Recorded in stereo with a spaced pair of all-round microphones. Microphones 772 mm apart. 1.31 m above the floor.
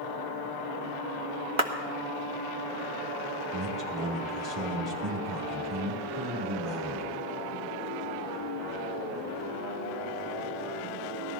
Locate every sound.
1.6 s a clap: 40° right (ahead or behind), 1.7 m
3.5 s a man speaking: 35° right (ahead or behind), 3.5 m